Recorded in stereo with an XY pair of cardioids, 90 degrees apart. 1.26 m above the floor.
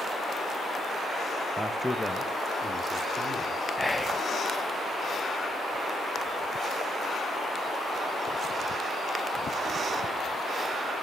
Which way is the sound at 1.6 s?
15° right.